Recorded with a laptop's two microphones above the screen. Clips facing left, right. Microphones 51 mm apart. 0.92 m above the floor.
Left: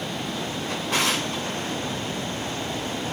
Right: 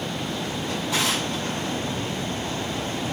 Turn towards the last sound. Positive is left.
turn(degrees=50)  # may be behind; listen again after turning